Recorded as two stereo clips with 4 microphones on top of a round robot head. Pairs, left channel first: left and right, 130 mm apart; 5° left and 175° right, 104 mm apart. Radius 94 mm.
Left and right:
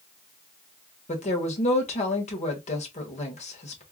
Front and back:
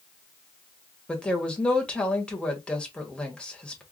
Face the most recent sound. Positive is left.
turn(degrees=85)